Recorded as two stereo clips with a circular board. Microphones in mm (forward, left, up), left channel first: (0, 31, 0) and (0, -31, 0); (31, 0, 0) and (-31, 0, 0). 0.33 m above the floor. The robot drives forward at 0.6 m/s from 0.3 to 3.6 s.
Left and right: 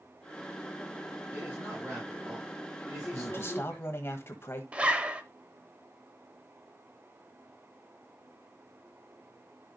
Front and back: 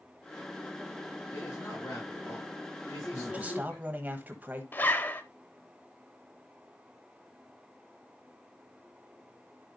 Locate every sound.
1.3 s a man speaking: 35° right, 7.5 m; by 4.1 s 40° right, 6.5 m
3.1 s a man speaking: 115° left, 1.3 m; by 4.6 s 125° left, 1.4 m
4.7 s a zipper: 30° right, 0.8 m